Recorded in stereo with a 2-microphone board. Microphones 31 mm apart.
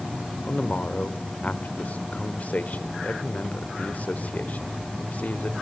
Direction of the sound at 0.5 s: 55° left (ahead or behind).